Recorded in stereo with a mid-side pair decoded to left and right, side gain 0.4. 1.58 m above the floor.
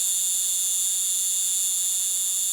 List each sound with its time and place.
0.0 s an insect: 25° right